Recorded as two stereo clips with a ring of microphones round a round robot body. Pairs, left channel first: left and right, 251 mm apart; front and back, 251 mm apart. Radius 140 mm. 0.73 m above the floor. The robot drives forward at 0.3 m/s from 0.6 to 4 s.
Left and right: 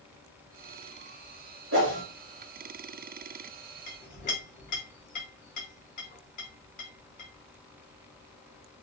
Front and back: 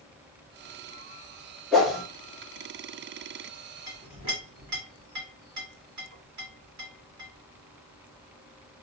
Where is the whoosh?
85° right, 1.6 m; by 2.0 s 90° right, 1.6 m.